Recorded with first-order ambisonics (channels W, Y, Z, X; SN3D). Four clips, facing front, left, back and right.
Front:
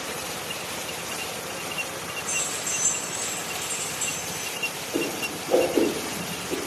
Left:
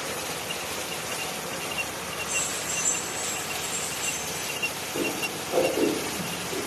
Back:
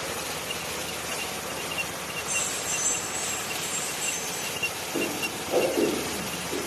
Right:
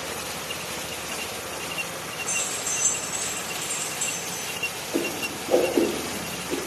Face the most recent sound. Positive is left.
turn(degrees=-70)